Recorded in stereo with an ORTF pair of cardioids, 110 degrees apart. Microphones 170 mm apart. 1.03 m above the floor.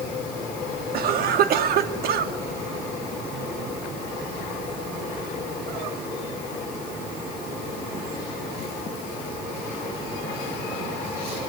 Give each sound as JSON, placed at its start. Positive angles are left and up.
{"t": 0.9, "sound": "a cough", "azimuth_deg": -65, "distance_m": 1.7}